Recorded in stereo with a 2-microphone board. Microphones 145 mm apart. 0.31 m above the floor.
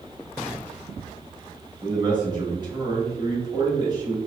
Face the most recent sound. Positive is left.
turn(degrees=-30)  # may be behind; listen again after turning